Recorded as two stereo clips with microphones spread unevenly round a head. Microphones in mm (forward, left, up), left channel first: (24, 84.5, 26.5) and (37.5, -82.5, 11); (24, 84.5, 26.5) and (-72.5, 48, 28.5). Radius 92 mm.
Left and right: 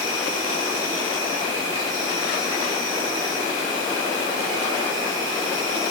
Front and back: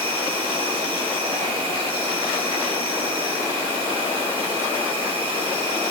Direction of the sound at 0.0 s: 170° left.